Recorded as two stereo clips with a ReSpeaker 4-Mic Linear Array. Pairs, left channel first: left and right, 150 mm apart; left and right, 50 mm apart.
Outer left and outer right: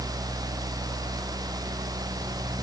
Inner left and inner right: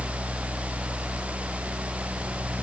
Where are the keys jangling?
No keys jangling in this recording.